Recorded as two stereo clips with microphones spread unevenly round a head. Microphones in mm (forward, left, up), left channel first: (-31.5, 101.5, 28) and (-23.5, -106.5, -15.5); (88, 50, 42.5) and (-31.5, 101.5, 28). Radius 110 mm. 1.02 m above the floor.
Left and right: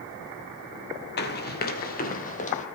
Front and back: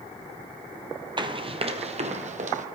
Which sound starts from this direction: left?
Running footsteps, at 1.2 s.